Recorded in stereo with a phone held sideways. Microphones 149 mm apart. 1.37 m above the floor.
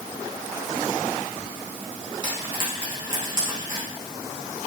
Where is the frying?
35° right (ahead or behind), 5 m.